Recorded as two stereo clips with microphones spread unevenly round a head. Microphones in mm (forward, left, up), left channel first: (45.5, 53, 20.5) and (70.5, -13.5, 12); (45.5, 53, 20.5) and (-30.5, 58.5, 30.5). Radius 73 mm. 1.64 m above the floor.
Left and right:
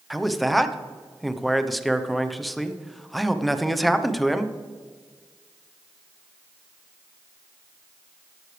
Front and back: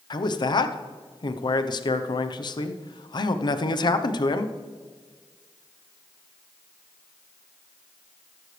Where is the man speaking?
20° left, 1.0 m.